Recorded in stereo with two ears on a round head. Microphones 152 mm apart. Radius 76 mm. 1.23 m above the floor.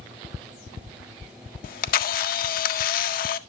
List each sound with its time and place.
1.6 s a camera shutter: 55° left (ahead or behind), 0.6 m